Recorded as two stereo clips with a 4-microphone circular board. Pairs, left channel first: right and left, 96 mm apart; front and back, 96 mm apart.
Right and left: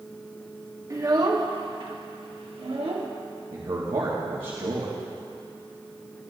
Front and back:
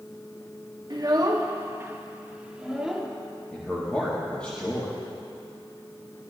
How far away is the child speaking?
About 1.3 m.